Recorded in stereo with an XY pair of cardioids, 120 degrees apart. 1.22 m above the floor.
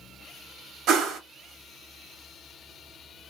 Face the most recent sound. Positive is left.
turn(degrees=-70)